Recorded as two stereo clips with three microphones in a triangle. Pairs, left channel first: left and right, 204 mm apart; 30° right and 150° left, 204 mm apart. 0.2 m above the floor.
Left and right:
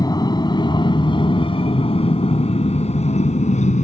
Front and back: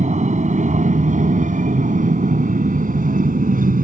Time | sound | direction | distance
0.0 | an aircraft | 145° left | ?